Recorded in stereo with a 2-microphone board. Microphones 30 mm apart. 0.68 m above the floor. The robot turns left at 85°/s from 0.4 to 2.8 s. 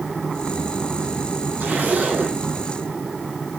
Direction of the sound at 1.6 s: 90° right.